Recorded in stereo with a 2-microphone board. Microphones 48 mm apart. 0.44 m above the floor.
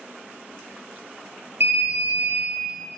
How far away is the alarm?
About 4.5 m.